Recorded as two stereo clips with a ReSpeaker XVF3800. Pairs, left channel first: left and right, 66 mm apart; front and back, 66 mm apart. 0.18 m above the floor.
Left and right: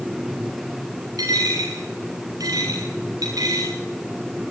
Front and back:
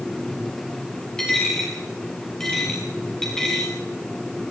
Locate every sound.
1.2 s a dropped coin: 80° right, 8 m